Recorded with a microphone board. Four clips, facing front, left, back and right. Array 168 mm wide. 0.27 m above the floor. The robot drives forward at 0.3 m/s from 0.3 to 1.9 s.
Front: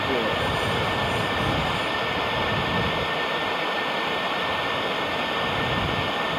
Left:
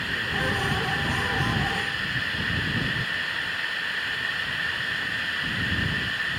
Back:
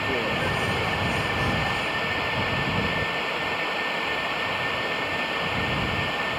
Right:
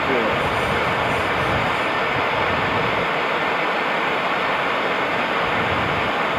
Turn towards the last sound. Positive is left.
turn(degrees=-80)